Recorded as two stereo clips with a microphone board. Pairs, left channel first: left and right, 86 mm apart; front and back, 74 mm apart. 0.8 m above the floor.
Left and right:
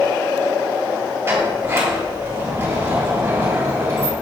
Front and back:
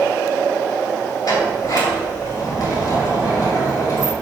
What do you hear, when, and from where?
1.2 s a sliding door: 30° right, 2.5 m